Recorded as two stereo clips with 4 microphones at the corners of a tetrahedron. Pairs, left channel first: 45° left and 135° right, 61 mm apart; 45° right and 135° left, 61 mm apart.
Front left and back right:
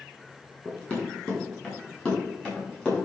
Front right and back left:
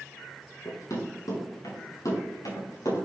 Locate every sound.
0.7 s running footsteps: 30° right, 5 m; by 3.0 s 35° right, 7 m